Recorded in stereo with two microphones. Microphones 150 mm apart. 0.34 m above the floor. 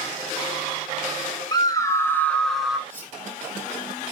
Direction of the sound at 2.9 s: 55° right (ahead or behind).